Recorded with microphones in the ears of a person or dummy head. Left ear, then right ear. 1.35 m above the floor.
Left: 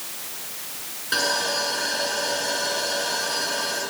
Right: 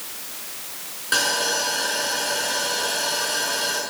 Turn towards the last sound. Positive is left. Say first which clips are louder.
# right 2 dB
turn(degrees=-20)  # may be behind; listen again after turning